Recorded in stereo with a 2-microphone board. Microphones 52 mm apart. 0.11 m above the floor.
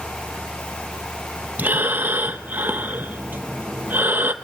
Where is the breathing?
35° right (ahead or behind), 1.2 m.